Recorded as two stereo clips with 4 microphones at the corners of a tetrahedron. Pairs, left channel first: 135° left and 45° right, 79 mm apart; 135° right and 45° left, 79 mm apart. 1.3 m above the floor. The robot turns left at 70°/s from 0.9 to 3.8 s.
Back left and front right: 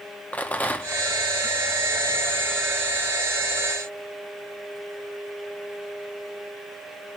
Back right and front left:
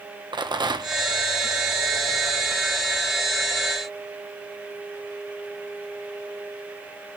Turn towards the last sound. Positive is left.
turn(degrees=-140)